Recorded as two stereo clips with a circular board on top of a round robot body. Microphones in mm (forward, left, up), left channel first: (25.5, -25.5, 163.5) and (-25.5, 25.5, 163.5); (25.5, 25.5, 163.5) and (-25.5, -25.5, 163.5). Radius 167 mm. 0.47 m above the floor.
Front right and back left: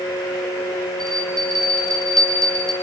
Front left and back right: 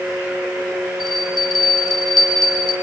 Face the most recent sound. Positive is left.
turn(degrees=40)